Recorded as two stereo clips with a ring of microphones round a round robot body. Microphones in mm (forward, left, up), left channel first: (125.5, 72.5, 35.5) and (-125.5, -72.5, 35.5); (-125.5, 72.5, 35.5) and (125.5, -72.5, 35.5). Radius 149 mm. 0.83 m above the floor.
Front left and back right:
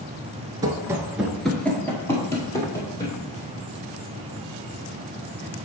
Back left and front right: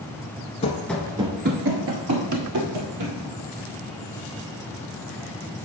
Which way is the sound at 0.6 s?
160° left.